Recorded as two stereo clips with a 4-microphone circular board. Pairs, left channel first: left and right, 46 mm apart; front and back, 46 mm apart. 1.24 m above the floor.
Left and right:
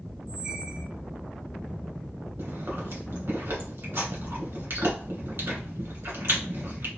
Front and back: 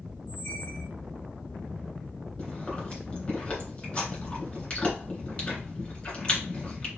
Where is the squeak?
30° right, 0.7 m.